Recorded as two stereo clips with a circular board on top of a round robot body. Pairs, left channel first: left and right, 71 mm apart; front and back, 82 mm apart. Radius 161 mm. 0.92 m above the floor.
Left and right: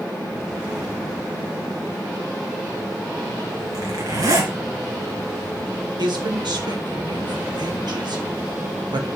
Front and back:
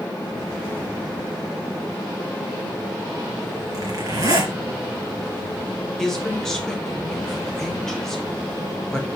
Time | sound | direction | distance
3.7 | a zipper | 130° right | 3 m
6.0 | a man speaking | 85° right | 3 m